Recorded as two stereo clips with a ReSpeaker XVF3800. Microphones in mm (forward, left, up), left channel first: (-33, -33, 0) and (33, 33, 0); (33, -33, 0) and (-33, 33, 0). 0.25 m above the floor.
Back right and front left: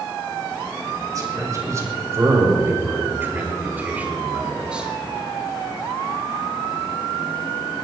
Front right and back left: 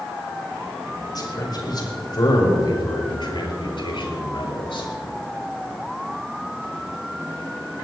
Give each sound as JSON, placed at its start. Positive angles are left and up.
{"t": 1.1, "sound": "a man speaking", "azimuth_deg": -5, "distance_m": 6.0}